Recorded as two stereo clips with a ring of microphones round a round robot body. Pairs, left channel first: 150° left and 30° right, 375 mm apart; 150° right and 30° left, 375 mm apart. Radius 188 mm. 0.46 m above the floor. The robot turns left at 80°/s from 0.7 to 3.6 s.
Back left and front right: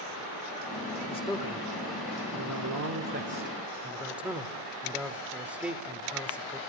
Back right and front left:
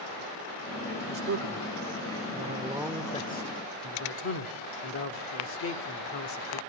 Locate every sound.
1.1 s a man speaking: 85° left, 1.0 m; by 6.6 s 115° right, 1.0 m